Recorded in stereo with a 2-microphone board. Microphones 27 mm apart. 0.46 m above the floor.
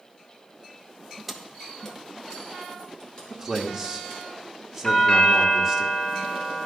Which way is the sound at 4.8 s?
25° left (ahead or behind).